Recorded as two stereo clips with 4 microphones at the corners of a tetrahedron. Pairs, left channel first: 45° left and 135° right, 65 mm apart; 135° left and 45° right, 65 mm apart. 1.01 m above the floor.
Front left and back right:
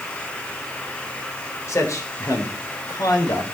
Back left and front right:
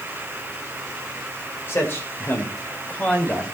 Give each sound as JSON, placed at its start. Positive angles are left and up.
{"t": 1.7, "sound": "a man speaking", "azimuth_deg": 85, "distance_m": 4.0}